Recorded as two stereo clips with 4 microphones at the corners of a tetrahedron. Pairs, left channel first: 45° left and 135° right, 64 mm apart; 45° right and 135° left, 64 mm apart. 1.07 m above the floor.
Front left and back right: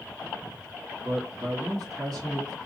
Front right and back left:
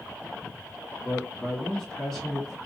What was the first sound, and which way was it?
A man speaking, 125° right.